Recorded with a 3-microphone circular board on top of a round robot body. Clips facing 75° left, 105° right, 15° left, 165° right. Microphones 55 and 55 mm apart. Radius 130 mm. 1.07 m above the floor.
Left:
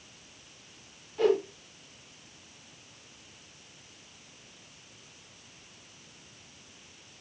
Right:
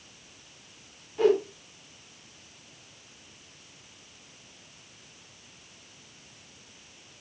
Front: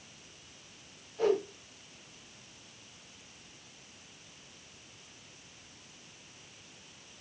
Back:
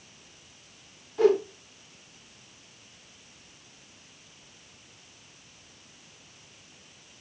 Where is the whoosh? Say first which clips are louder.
Right 2 dB, back 7 dB; 175° left, 3 m.